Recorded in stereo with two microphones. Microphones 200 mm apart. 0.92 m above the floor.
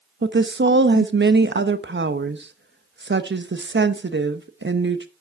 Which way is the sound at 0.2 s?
70° right (ahead or behind).